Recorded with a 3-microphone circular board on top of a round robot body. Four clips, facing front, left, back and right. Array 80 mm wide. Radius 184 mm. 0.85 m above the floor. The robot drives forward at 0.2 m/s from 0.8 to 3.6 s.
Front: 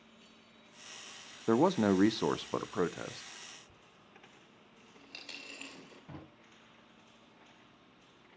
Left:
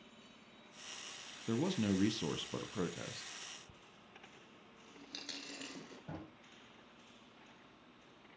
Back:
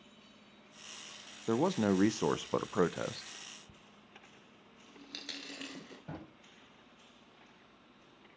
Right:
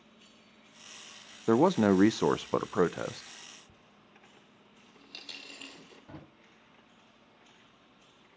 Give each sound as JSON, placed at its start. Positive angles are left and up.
{"t": 1.5, "sound": "a man speaking", "azimuth_deg": -70, "distance_m": 0.6}
{"t": 3.7, "sound": "a dropped coin", "azimuth_deg": 160, "distance_m": 1.2}
{"t": 6.1, "sound": "a drawer", "azimuth_deg": 155, "distance_m": 3.5}